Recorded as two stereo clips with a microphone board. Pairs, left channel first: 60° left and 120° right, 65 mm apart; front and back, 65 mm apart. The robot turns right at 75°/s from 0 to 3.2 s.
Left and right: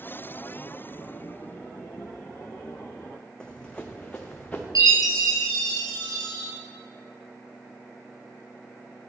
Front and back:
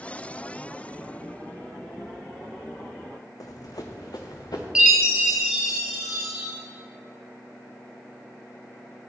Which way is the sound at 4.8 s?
100° right.